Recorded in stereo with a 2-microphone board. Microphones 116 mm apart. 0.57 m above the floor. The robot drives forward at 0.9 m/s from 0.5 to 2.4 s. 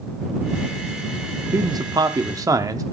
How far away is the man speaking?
About 0.9 m.